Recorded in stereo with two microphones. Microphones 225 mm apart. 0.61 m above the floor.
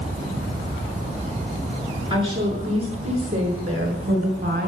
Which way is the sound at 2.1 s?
25° right (ahead or behind).